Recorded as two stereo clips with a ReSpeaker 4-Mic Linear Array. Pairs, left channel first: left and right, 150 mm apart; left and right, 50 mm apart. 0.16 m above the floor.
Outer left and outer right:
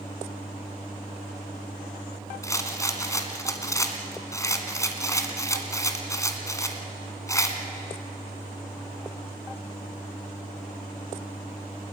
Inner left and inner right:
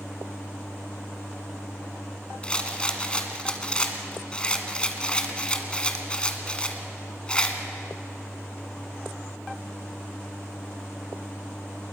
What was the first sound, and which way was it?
A rattle, 20° left (ahead or behind).